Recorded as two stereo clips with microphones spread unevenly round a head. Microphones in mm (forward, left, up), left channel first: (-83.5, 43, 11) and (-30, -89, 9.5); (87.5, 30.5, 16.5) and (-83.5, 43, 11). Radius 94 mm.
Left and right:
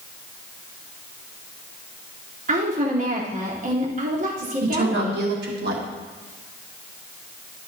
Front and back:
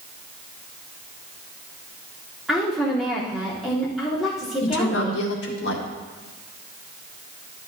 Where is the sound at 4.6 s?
40° right, 2.0 m.